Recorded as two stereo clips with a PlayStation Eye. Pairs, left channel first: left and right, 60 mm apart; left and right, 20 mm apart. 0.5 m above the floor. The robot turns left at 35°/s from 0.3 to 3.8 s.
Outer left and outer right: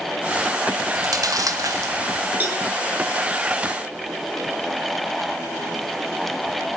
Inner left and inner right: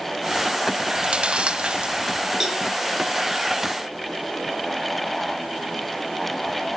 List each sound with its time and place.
0.9 s chewing: 85° right, 1.0 m; by 2.3 s 45° right (ahead or behind), 1.0 m
2.4 s a cowbell: 30° right (ahead or behind), 6 m; by 2.6 s 35° right (ahead or behind), 6 m